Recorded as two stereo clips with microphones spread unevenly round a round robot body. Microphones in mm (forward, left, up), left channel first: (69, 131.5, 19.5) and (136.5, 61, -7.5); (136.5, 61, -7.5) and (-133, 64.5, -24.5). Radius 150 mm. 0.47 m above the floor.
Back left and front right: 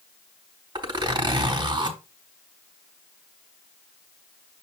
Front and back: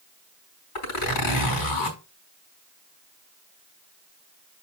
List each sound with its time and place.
0.8 s a zipper: 10° right, 4 m